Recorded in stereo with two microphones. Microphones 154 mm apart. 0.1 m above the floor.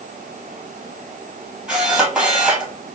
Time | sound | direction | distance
1.7 | a camera shutter | 5° right (ahead or behind) | 1.4 m